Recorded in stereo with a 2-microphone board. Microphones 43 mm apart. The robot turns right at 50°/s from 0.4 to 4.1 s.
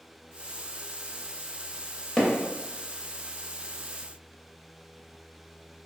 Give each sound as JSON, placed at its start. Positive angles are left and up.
{"t": 2.2, "sound": "hammering", "side_deg": 15, "distance_m": 0.6}